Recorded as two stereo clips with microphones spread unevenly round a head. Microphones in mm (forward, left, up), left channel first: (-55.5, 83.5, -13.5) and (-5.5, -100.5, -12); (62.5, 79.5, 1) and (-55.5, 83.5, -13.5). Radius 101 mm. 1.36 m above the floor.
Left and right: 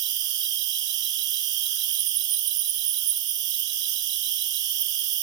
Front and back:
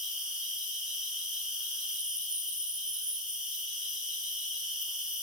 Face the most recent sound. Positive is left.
turn(degrees=-95)